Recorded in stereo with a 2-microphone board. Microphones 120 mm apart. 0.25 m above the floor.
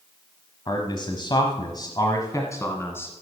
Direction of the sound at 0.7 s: 40° left (ahead or behind).